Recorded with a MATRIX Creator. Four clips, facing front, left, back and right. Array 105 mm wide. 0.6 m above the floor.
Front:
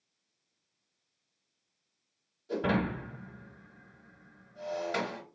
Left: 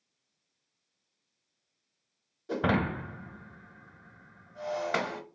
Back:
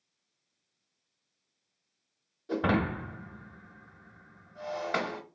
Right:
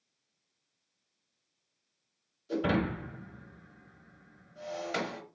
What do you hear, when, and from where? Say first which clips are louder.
2.5 s breaking glass: left 1 dB, back 2 dB; 120° left, 1.0 m